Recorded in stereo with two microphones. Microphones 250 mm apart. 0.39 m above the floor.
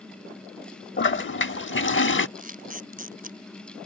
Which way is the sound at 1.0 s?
50° left (ahead or behind).